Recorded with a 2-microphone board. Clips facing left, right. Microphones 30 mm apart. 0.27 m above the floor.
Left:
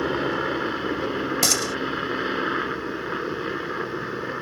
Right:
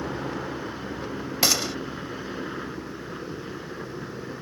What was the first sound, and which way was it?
A helicopter, 50° left (ahead or behind).